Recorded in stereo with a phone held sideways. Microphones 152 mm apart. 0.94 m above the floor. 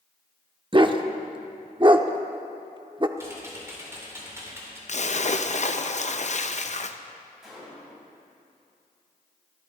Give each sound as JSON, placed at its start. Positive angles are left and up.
{"t": 0.7, "sound": "a dog barking", "side_deg": -35, "distance_m": 0.6}
{"t": 3.2, "sound": "typing on a keyboard", "side_deg": -20, "distance_m": 3.0}
{"t": 4.9, "sound": "a splash", "side_deg": 55, "distance_m": 0.6}
{"t": 7.4, "sound": "a gunshot", "side_deg": 0, "distance_m": 5.5}